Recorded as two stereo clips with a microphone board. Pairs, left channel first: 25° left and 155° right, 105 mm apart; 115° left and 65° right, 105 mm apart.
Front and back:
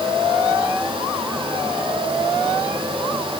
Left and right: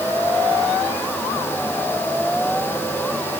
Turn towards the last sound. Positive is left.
No sound to turn to.